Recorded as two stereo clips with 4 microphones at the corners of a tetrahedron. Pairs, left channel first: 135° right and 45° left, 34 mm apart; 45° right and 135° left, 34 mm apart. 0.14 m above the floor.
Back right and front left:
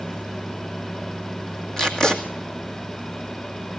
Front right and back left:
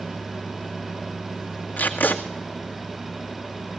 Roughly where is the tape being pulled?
Right.